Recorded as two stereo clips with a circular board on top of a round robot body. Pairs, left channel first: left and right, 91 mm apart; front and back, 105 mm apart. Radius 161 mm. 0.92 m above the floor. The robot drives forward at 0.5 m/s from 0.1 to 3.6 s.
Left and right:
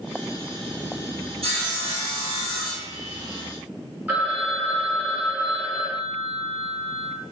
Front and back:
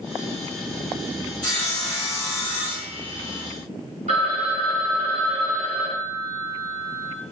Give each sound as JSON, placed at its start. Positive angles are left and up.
{"t": 1.4, "sound": "sawing", "azimuth_deg": -80, "distance_m": 1.6}
{"t": 4.1, "sound": "a phone ringing", "azimuth_deg": -165, "distance_m": 0.6}